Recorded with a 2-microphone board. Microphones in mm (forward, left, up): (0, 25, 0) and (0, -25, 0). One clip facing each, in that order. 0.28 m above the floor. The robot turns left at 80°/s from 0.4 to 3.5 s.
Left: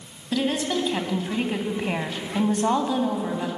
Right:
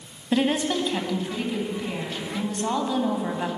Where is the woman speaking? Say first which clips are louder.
Right 2 dB; 150° right, 1.5 m; by 3.5 s 35° right, 1.5 m.